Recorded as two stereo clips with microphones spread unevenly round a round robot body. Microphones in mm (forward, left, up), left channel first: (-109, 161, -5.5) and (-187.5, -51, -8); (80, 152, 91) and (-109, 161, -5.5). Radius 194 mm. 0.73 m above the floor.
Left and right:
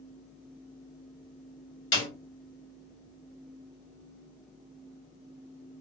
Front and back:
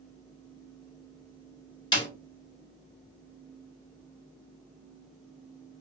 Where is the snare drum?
80° left, 1.7 m.